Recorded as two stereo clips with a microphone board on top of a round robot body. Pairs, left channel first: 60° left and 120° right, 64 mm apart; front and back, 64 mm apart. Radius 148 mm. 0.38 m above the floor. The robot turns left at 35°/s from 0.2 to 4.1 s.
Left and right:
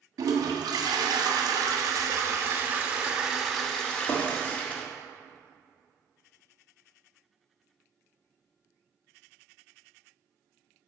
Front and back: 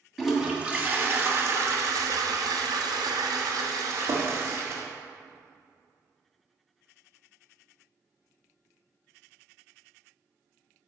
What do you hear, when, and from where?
0.2 s a toilet flushing: 90° right, 1.3 m; by 4.9 s 130° left, 1.3 m